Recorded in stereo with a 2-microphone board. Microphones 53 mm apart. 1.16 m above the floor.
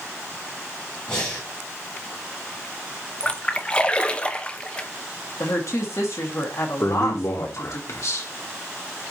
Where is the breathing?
20° left (ahead or behind), 5.5 m.